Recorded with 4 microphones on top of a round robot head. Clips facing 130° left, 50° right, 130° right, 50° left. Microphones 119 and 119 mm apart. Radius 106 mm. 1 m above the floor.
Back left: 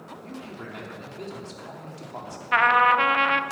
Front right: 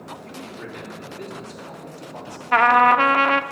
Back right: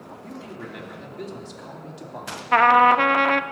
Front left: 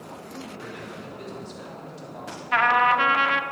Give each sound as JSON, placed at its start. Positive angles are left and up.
{"t": 0.2, "sound": "a man speaking", "azimuth_deg": -165, "distance_m": 3.5}
{"t": 2.5, "sound": "a trumpet", "azimuth_deg": -95, "distance_m": 0.7}